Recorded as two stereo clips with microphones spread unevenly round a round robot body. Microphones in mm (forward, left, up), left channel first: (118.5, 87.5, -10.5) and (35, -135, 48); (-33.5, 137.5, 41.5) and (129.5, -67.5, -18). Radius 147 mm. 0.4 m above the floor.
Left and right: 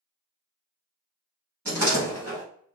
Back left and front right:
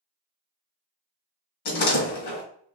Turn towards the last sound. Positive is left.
turn(degrees=165)